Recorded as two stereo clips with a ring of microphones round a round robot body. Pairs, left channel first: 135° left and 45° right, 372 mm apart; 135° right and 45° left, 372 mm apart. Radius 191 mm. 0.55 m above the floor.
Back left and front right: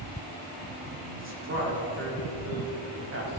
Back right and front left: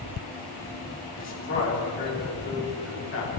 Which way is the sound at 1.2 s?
90° right.